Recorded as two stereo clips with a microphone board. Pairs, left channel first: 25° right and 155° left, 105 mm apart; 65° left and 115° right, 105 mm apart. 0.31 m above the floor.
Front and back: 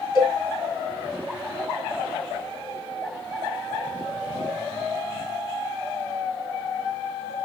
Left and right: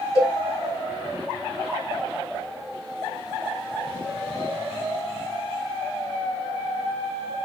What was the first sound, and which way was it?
A cowbell, 25° left.